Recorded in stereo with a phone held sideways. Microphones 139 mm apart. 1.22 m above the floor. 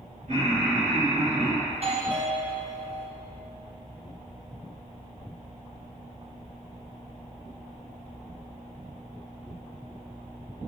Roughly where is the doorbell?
Right.